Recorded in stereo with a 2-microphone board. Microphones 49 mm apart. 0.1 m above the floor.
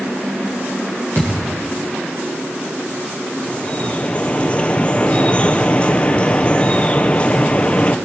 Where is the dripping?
25° left (ahead or behind), 1.0 m.